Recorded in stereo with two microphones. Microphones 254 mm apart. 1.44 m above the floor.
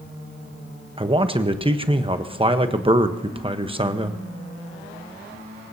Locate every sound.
1.0 s a man speaking: 25° right (ahead or behind), 1.0 m